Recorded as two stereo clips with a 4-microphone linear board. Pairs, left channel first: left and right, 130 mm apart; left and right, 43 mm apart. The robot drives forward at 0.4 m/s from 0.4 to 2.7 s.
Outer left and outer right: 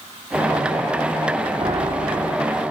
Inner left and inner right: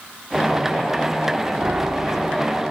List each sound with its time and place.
1.6 s a piano: 45° right (ahead or behind), 4 m